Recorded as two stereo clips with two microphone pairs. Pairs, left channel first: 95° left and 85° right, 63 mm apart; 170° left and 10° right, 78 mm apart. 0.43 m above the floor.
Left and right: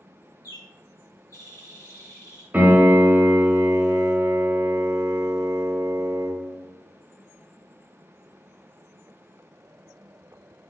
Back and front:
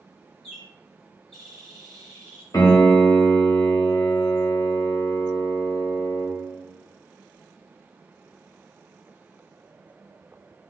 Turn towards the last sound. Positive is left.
turn(degrees=-155)